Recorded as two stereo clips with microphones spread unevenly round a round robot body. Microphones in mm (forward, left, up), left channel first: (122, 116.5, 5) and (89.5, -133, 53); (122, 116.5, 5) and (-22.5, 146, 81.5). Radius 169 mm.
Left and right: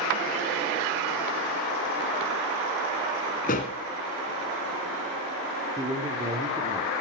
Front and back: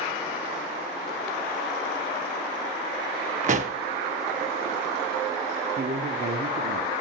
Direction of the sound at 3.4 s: 150° left.